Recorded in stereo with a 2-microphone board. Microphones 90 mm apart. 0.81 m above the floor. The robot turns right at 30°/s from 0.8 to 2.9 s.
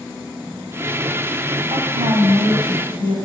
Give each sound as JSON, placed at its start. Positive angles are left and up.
{"t": 1.7, "sound": "a woman speaking", "azimuth_deg": -110, "distance_m": 4.5}